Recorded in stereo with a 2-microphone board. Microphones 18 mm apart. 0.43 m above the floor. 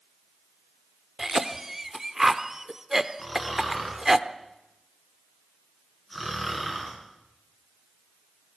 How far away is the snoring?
About 6 m.